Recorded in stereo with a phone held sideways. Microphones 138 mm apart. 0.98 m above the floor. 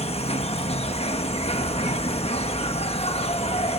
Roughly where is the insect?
Left.